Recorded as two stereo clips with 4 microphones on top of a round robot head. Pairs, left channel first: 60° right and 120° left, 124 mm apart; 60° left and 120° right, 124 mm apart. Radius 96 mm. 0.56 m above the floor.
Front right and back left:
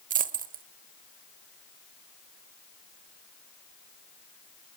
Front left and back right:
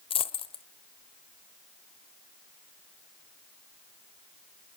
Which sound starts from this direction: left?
A dropped coin, at 0.1 s.